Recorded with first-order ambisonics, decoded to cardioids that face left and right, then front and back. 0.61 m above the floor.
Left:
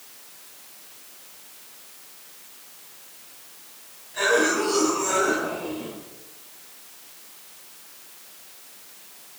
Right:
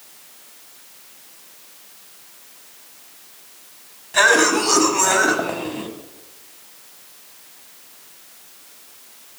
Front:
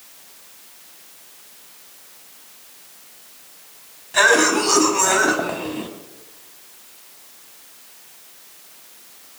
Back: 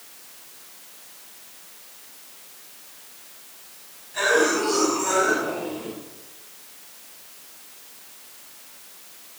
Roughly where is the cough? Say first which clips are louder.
Right 7 dB, front 5 dB; ahead right.